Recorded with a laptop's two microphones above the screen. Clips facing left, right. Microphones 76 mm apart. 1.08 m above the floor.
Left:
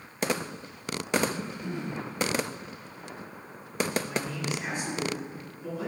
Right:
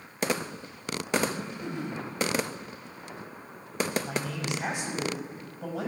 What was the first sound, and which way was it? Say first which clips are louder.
Throat clearing: left 1 dB; 60° right (ahead or behind).